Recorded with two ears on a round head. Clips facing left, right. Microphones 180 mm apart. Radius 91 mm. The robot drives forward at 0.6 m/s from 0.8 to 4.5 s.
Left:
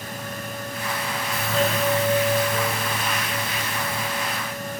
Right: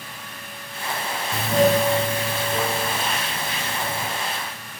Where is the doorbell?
15° right (ahead or behind), 0.5 m; by 4.1 s 5° right (ahead or behind), 1.8 m.